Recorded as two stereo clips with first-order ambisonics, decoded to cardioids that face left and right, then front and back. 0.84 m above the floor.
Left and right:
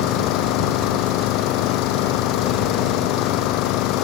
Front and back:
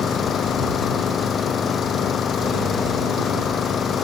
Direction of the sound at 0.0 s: 65° left.